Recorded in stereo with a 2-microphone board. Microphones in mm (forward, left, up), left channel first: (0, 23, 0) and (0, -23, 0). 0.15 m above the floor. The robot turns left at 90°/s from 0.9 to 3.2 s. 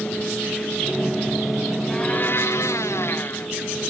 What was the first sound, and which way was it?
A blender, 165° left.